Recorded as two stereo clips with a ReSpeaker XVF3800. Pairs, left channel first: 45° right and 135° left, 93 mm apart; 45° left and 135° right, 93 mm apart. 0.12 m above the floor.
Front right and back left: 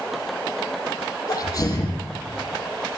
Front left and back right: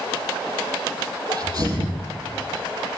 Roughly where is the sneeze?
Right.